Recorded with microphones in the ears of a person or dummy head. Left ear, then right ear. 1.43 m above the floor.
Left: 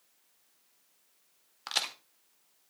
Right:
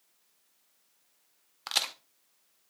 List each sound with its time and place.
1.7 s a crack: 15° right (ahead or behind), 0.6 m